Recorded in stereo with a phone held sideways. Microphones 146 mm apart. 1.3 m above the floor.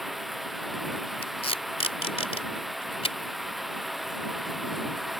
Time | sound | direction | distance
0.0 | running water | centre (ahead or behind) | ?
1.2 | tape being pulled | 40° left (ahead or behind) | ?